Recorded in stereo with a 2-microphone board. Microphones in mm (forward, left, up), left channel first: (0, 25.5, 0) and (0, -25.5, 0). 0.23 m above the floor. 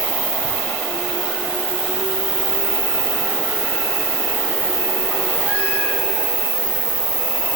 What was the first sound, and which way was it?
An insect, 80° left.